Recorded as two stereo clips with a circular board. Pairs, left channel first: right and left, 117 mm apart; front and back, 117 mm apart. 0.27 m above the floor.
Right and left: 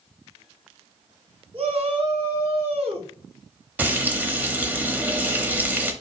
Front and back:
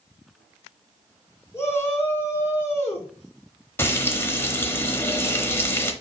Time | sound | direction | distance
1.5 | a shout | 65° left | 3 m
3.8 | frying | 35° left | 0.9 m